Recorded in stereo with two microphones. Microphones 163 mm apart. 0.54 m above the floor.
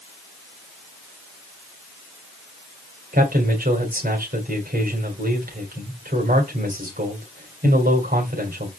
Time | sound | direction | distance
3.1 | a man speaking | 70° right (ahead or behind) | 2.5 m